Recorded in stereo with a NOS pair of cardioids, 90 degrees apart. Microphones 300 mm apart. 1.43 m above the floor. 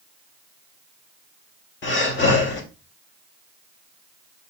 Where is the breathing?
40° left, 1.4 m.